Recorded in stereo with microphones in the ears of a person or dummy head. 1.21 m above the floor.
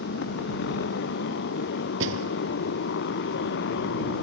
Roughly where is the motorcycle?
Left.